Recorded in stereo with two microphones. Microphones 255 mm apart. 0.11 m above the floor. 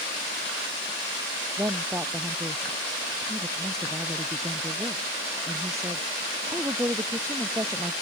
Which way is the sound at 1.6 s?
10° right (ahead or behind).